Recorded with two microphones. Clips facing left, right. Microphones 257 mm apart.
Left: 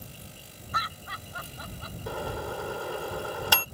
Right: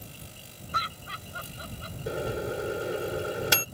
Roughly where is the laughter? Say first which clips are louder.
Left 1 dB; right.